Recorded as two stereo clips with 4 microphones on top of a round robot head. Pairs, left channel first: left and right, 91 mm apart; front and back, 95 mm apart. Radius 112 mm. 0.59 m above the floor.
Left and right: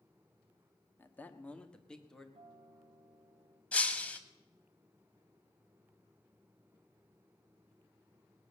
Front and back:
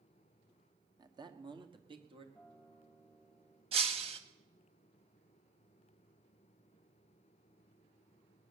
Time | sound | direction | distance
1.0 | a man speaking | 150° left | 1.3 m
2.4 | a guitar | 85° right | 1.5 m
3.7 | breaking glass | 165° left | 1.3 m